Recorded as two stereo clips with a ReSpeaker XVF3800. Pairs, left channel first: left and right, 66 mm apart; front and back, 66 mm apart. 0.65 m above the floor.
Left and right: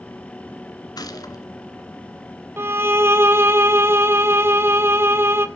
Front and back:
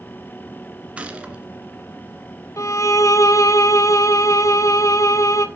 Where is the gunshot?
110° left, 2 m.